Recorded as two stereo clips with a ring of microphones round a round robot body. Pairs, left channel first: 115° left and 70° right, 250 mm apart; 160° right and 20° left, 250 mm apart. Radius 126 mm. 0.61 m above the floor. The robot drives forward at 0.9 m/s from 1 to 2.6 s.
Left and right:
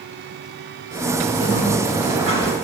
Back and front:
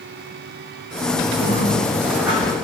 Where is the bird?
45° right, 2.5 m; by 2.5 s 70° right, 2 m.